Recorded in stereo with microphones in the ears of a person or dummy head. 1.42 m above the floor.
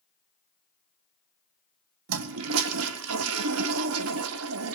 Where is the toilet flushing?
75° right (ahead or behind), 0.8 m.